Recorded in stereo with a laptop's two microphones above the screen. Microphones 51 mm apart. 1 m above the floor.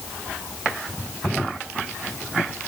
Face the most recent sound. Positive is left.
No sound to turn to.